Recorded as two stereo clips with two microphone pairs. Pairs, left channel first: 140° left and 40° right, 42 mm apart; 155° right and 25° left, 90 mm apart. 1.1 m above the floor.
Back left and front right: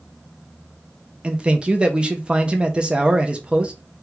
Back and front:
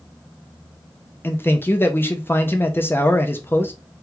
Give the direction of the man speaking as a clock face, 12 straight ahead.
3 o'clock.